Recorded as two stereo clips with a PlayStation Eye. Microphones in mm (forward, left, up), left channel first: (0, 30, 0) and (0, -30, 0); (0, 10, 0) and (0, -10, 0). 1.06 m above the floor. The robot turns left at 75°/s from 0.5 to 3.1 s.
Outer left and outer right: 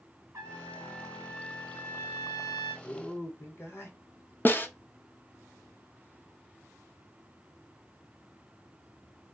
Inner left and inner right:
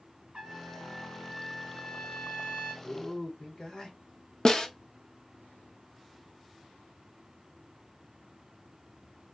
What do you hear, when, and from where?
0.3 s a trumpet: 115° right, 1.7 m; by 2.7 s 75° left, 1.7 m
2.8 s a man speaking: 55° left (ahead or behind), 1.2 m; by 4.0 s 40° left (ahead or behind), 1.2 m
4.5 s a snare drum: 30° left (ahead or behind), 0.6 m